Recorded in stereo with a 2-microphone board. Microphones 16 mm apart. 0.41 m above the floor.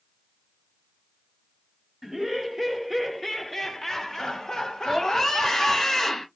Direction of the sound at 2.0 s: 35° right (ahead or behind).